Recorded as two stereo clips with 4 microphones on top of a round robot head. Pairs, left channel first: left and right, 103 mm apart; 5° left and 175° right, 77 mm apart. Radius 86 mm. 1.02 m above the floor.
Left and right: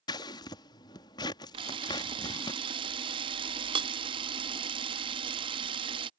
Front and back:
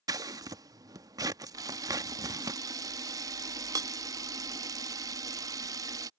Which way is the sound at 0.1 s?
145° left.